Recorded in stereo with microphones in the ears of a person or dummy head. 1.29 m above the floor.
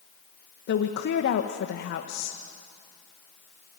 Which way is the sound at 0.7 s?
55° left (ahead or behind).